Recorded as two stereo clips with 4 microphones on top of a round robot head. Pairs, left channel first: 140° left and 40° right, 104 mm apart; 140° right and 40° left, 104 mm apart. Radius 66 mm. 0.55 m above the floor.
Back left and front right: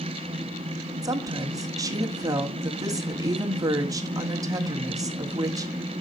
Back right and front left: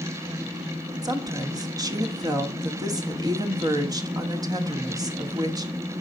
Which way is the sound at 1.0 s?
5° left.